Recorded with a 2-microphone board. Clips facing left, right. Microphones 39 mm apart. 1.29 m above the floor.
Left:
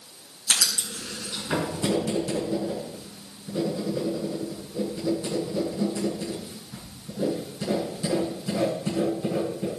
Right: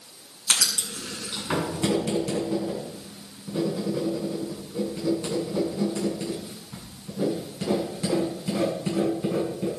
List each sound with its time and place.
0.5 s writing: 55° right (ahead or behind), 7.5 m